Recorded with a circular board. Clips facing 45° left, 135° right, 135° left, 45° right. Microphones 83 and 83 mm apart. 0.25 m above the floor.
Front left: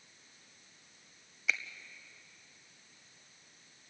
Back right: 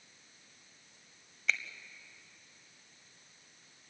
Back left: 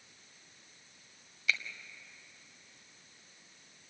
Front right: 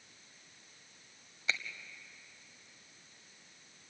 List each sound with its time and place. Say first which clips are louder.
1.5 s a finger snap: back right 1 dB, back left 3 dB; 35° right, 1.2 m